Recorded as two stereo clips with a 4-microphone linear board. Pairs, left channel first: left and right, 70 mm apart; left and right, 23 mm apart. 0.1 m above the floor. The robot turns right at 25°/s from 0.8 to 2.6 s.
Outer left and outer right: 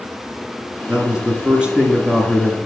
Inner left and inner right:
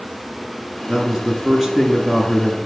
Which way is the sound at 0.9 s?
20° right (ahead or behind).